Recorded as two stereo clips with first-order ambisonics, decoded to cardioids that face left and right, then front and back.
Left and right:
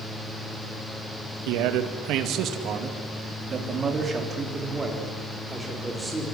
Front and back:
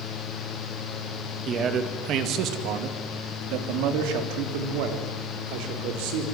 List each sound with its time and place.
1.5 s a man speaking: 115° right, 2 m; by 6.2 s 175° right, 5.5 m